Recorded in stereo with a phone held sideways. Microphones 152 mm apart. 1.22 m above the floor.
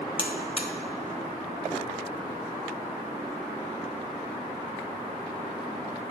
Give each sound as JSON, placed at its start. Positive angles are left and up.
{"t": 0.2, "sound": "a buzzer", "side_deg": 35, "distance_m": 1.2}